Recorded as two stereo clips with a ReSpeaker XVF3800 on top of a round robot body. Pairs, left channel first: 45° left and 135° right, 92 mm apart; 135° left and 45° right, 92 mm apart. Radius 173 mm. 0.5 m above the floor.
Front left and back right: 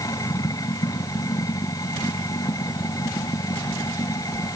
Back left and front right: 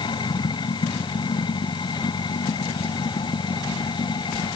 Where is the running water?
95° left.